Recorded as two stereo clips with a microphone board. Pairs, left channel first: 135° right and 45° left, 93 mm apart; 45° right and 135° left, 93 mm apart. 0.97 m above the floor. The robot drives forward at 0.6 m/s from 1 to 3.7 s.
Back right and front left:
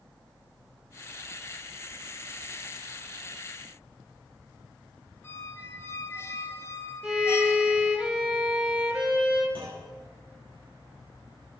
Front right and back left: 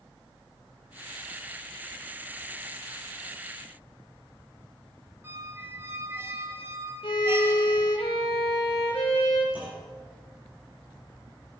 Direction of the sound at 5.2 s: Straight behind.